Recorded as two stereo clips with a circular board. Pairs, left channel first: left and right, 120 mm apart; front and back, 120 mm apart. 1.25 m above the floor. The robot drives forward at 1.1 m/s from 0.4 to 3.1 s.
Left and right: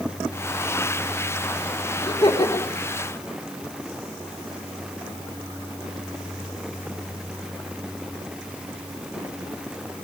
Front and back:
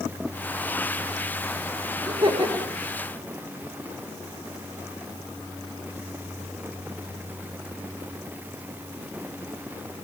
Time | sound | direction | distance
2.0 | laughter | 140° left | 3.5 m